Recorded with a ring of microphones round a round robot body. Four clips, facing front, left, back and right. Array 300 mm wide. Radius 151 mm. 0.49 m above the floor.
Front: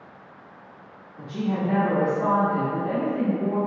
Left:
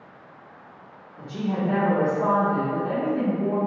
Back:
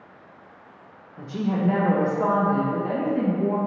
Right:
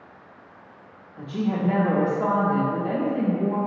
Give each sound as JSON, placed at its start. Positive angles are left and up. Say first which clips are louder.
{"t": 1.2, "sound": "a woman speaking", "louder": "right 1 dB, back 1 dB", "azimuth_deg": -135, "distance_m": 0.7}